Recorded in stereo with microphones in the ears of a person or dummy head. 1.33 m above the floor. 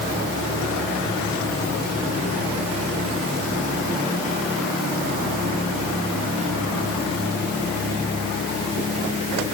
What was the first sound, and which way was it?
Only background noise.